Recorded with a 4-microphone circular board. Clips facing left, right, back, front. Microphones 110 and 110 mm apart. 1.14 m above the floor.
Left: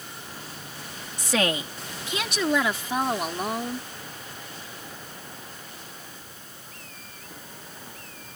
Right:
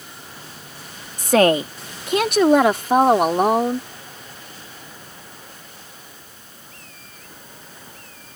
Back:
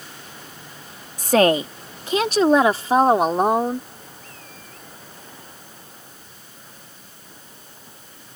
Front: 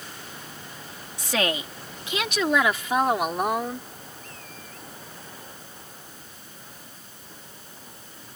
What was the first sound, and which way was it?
A woman speaking, 135° right.